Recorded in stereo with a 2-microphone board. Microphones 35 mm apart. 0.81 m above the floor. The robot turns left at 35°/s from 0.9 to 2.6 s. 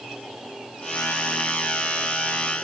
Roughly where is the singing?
No singing in this recording.